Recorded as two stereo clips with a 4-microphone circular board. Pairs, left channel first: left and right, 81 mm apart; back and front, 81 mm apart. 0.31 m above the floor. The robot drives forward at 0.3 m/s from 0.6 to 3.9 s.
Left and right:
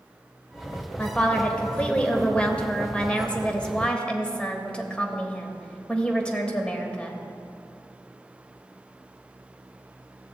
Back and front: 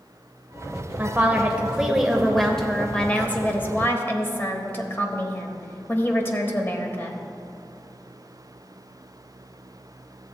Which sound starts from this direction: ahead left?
A woman speaking, at 1.0 s.